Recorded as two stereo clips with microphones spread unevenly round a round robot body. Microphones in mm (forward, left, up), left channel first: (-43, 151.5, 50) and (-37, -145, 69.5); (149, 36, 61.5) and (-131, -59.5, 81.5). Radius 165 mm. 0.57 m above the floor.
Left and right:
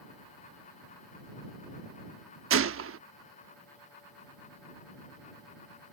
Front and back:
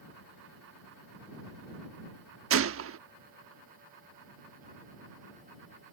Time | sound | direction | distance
2.5 | a gunshot | 125° right | ?